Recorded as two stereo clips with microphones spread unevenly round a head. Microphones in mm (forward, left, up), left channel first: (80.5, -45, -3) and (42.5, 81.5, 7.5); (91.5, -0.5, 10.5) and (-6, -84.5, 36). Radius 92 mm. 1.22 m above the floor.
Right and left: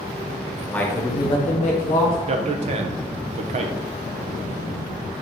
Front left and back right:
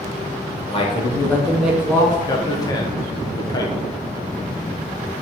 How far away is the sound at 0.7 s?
About 1.2 m.